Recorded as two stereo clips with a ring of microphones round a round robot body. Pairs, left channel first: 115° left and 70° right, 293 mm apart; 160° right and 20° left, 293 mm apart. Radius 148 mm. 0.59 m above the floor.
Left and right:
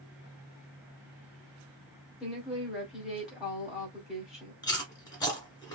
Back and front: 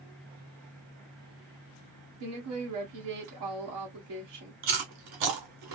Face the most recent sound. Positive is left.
turn(degrees=35)